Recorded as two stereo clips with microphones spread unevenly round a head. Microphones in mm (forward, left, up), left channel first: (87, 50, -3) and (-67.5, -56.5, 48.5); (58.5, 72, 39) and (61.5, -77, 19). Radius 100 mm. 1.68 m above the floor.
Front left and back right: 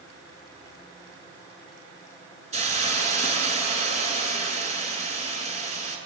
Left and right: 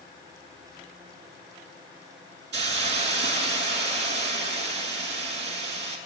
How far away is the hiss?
About 7 m.